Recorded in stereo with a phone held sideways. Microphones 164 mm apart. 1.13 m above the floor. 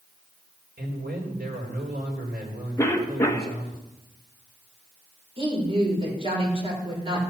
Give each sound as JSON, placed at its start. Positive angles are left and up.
{"t": 0.8, "sound": "a man speaking", "side_deg": -75, "distance_m": 4.0}
{"t": 2.8, "sound": "a cough", "side_deg": 15, "distance_m": 1.5}
{"t": 5.4, "sound": "a woman speaking", "side_deg": -35, "distance_m": 4.5}